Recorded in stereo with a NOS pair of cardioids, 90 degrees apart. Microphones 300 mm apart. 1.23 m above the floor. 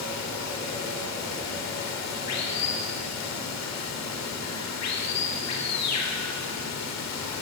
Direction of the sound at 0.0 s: 60° left.